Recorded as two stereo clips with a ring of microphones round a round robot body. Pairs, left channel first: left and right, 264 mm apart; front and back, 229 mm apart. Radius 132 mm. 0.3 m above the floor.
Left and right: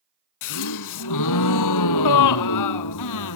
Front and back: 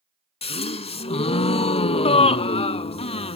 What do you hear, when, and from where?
0.4 s a gasp: 65° left, 0.7 m